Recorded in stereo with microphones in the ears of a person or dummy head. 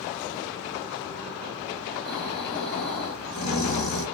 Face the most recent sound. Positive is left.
turn(degrees=45)  # may be behind; listen again after turning